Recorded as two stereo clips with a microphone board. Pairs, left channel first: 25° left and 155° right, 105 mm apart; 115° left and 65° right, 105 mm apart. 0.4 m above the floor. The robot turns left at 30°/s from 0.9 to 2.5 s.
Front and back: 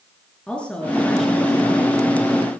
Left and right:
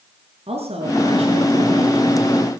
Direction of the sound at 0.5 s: 60° right.